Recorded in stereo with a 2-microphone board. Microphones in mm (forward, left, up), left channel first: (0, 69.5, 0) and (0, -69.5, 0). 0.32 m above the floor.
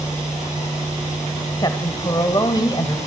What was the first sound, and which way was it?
A woman speaking, 30° left (ahead or behind).